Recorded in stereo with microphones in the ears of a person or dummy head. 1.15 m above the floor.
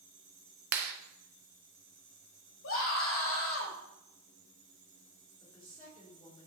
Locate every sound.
0.7 s a clap: 55° right (ahead or behind), 0.6 m
2.6 s a scream: 70° left (ahead or behind), 1.9 m
5.4 s a woman speaking: 20° left (ahead or behind), 3.5 m